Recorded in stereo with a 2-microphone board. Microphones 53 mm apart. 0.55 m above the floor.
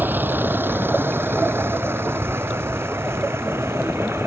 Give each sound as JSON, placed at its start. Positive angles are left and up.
{"t": 0.0, "sound": "a vehicle", "side_deg": -35}